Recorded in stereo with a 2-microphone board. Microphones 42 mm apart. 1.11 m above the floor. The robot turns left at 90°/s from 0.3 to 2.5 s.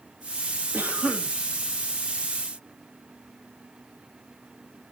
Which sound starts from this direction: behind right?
A cough, at 0.7 s.